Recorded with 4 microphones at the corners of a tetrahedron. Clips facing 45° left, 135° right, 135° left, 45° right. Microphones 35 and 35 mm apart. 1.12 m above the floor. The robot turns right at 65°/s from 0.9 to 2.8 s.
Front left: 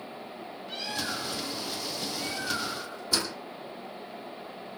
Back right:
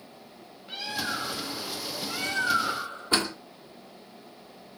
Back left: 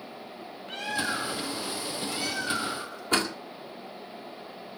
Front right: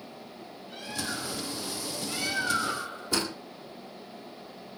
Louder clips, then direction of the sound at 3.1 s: Back right 4 dB, back left 4 dB; straight behind.